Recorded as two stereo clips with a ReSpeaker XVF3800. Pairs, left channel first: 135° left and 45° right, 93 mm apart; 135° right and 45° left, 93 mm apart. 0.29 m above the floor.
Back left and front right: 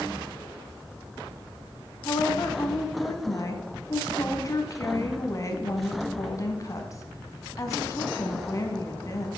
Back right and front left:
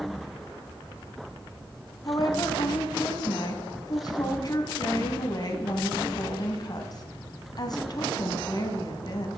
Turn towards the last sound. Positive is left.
turn(degrees=-175)